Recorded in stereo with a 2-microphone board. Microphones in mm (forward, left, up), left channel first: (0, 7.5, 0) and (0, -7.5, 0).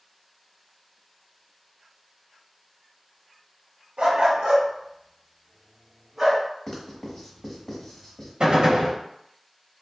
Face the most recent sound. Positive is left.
turn(degrees=-60)  # may be behind; listen again after turning